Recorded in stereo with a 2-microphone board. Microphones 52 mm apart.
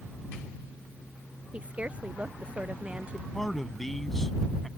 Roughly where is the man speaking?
Centre.